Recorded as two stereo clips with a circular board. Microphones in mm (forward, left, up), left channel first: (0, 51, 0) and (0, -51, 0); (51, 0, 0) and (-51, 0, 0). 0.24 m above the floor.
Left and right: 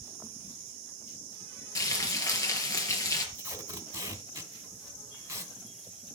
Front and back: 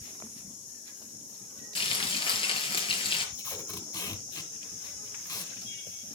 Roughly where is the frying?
Ahead left.